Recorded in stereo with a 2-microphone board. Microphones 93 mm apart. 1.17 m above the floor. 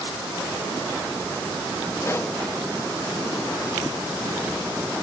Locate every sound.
2.0 s a pop: 30° left (ahead or behind), 0.6 m